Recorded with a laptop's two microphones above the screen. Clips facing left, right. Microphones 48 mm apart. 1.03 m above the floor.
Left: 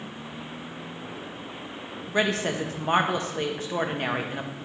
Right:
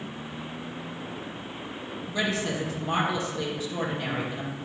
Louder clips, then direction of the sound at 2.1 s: Left 3 dB; 50° left (ahead or behind).